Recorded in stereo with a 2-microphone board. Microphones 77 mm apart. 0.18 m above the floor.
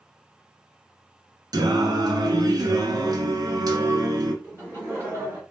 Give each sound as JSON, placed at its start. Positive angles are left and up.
{"t": 1.5, "sound": "singing", "side_deg": -60, "distance_m": 0.6}
{"t": 4.4, "sound": "laughter", "side_deg": -35, "distance_m": 1.8}